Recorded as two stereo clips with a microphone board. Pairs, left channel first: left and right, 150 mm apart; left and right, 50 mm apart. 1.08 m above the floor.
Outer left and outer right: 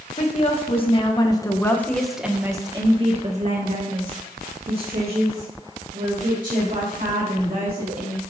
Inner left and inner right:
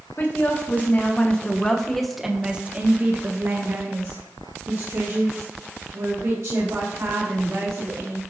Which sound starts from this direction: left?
A woman speaking, at 0.2 s.